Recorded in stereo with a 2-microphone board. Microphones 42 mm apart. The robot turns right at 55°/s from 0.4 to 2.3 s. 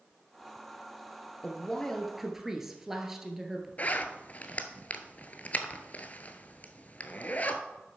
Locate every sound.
1.4 s a woman speaking: 140° left, 1.6 m; by 3.7 s 170° right, 1.6 m
3.8 s a zipper: 40° left (ahead or behind), 0.8 m